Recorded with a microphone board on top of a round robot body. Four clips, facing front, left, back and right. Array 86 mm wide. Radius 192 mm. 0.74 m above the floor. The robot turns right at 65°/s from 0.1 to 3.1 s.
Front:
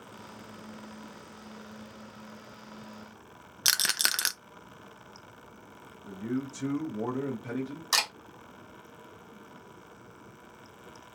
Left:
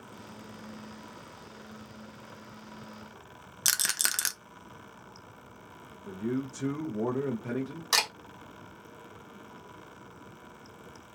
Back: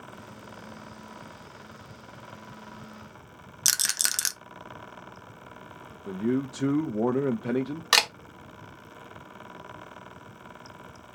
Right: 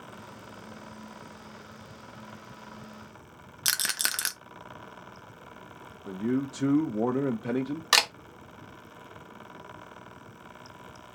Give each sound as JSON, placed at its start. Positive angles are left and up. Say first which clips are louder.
{"t": 3.6, "sound": "a rattle", "louder": "right 1 dB, front 3 dB", "azimuth_deg": -20, "distance_m": 0.6}
{"t": 6.1, "sound": "a man speaking", "louder": "right 4 dB, back 6 dB", "azimuth_deg": -145, "distance_m": 0.7}
{"t": 7.9, "sound": "a camera shutter", "louder": "right 4 dB, back 6 dB", "azimuth_deg": -145, "distance_m": 0.8}